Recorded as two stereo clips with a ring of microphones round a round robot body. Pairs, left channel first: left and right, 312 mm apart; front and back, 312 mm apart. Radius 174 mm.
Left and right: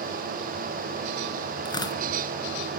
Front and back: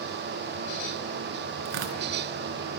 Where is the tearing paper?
165° left, 3.5 m.